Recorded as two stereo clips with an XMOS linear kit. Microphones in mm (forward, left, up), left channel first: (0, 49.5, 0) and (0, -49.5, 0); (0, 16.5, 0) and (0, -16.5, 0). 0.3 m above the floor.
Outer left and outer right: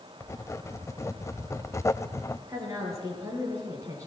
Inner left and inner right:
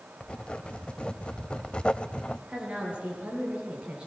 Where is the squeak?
No squeak in this recording.